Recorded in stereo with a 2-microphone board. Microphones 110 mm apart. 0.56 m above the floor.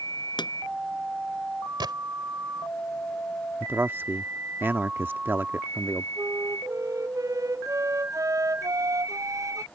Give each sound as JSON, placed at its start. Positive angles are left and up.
{"t": 0.4, "sound": "a pop", "side_deg": 45}
{"t": 1.8, "sound": "a gunshot", "side_deg": -45}
{"t": 3.6, "sound": "a man speaking", "side_deg": -20}
{"t": 6.2, "sound": "a flute", "side_deg": -30}